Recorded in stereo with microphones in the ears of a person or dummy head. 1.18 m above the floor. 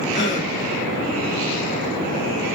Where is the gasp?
40° left (ahead or behind), 2 m.